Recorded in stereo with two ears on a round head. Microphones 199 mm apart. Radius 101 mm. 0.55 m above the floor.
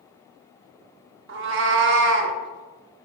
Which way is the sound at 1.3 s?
60° right (ahead or behind).